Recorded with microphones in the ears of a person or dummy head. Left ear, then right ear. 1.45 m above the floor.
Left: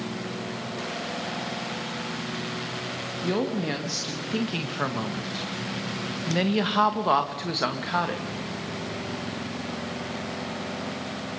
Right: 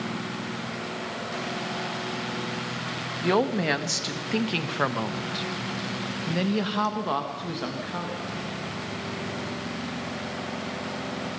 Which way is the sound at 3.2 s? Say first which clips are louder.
Right 5 dB; 45° right (ahead or behind).